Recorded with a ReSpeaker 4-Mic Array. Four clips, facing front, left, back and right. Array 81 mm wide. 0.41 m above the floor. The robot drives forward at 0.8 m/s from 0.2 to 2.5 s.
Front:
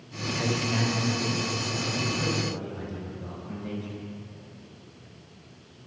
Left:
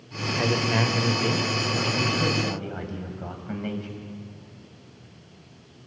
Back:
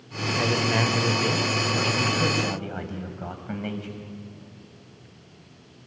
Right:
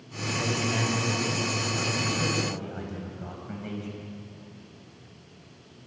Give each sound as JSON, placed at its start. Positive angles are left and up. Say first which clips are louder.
{"t": 0.4, "sound": "a man speaking", "louder": "left 5 dB, back 4 dB", "azimuth_deg": 120, "distance_m": 1.6}